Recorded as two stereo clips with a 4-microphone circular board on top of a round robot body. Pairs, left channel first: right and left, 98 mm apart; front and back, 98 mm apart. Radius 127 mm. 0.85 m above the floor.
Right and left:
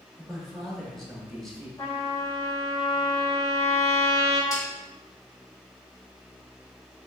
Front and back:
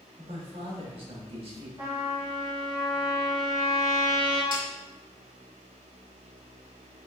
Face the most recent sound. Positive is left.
turn(degrees=-145)